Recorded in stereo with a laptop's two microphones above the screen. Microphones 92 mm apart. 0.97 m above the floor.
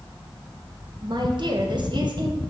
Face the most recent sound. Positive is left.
turn(degrees=-55)  # may be behind; listen again after turning